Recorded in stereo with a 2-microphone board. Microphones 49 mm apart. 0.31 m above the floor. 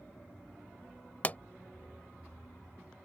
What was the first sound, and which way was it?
A pop, 35° left (ahead or behind).